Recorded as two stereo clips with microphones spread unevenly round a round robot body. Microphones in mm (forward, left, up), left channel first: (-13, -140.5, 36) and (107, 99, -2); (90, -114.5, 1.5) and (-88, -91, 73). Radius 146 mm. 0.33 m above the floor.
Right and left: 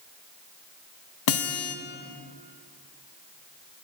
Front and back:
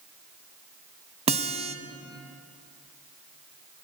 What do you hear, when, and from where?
1.3 s a guitar: 125° right, 0.5 m